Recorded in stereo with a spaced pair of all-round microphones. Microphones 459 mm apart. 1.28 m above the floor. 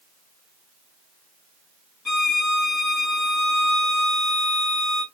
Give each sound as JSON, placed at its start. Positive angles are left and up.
{"t": 2.0, "sound": "a violin", "side_deg": 40, "distance_m": 1.5}